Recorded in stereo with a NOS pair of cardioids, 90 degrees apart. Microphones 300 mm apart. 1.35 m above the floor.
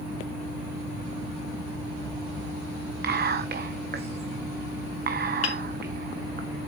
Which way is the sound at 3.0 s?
35° right.